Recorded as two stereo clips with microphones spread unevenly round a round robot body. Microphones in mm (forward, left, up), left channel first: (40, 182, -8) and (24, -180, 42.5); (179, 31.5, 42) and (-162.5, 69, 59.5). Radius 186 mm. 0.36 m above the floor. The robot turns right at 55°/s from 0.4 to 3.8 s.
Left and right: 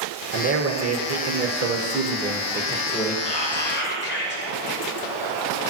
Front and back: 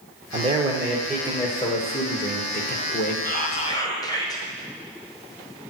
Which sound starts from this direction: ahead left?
Whispering, at 3.2 s.